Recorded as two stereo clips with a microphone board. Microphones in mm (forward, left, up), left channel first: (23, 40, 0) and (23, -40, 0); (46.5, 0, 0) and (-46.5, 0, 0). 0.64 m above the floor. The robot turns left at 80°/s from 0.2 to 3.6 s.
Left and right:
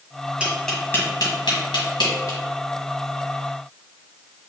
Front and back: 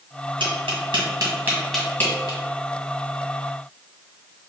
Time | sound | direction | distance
0.4 | tapping | 165° right | 1.7 m